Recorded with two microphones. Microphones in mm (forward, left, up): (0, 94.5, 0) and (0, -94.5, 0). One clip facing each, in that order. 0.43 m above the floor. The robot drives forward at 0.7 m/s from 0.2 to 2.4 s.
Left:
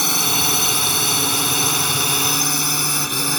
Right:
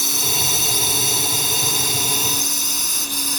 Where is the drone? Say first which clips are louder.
Left 4 dB; 75° left (ahead or behind); by 3.4 s 70° left (ahead or behind).